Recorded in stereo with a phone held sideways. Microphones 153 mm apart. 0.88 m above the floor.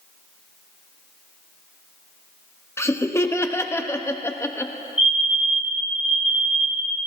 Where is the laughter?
15° left (ahead or behind), 0.9 m.